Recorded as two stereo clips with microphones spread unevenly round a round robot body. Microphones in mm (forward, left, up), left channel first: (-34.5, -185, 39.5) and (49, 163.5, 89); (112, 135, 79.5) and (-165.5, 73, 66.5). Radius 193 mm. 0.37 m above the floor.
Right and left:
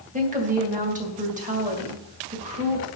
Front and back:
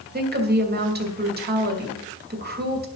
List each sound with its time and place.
0.1 s a woman speaking: 145° left, 2.5 m